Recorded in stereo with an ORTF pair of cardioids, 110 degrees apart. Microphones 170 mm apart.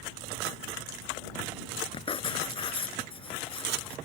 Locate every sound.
1.9 s writing: 30° left